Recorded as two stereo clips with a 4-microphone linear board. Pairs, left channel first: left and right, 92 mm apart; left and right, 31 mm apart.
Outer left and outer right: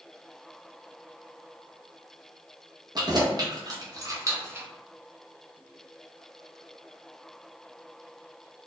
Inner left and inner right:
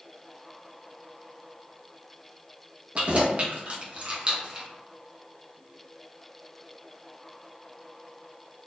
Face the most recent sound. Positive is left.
turn(degrees=-25)  # may be behind; listen again after turning